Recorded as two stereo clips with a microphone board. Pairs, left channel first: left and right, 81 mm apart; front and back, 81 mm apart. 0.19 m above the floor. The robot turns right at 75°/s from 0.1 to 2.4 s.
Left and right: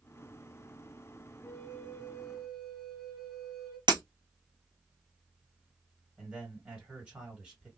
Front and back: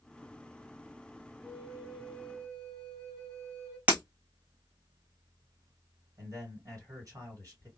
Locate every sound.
1.4 s a flute: 130° left, 2 m; by 3.8 s 155° right, 2 m
3.9 s breaking glass: 110° right, 1.8 m
6.2 s a man speaking: 160° right, 2.5 m